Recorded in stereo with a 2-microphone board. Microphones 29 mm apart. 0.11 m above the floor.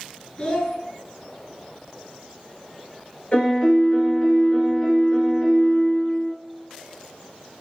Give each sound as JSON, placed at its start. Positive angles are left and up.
{"t": 0.4, "sound": "a child speaking", "side_deg": 35, "distance_m": 0.8}
{"t": 3.3, "sound": "a piano", "side_deg": 40, "distance_m": 1.2}